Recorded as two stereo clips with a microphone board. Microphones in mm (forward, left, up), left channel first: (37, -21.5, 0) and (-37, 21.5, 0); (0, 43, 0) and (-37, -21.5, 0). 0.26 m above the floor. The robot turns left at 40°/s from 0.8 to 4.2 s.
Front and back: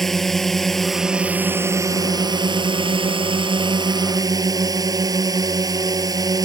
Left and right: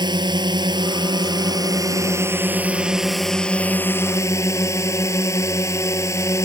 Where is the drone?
115° right; by 6.5 s 110° left.